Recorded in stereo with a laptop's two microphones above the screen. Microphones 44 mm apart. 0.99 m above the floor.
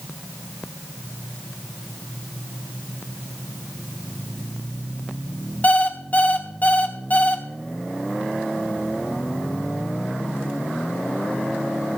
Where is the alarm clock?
40° left (ahead or behind), 1.2 m.